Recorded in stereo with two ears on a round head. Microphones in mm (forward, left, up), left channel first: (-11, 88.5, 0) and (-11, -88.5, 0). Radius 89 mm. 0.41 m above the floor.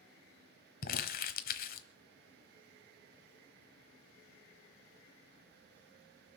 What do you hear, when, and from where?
0.8 s crumpling: 50° left (ahead or behind), 1.1 m